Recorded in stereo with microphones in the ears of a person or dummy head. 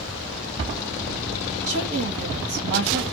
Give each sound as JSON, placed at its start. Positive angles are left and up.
{"t": 1.7, "sound": "a woman speaking", "side_deg": -75, "distance_m": 2.5}